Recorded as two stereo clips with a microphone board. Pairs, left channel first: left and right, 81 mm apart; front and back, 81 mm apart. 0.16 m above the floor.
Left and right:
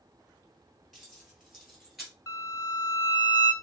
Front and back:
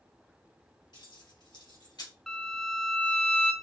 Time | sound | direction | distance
0.9 | keys jangling | straight ahead | 2.5 m
2.3 | a violin | 80° left | 0.6 m